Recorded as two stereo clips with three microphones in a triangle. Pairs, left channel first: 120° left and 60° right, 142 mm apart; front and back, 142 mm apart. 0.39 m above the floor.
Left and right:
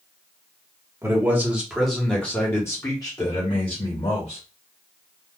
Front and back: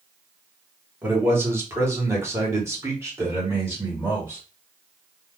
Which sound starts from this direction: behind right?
A man speaking, at 1.0 s.